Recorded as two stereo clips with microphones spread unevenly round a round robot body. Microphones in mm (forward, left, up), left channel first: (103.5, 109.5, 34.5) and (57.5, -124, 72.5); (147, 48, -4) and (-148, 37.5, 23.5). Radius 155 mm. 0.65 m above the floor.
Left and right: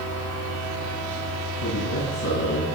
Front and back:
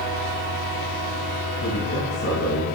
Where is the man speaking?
60° left, 6.5 m.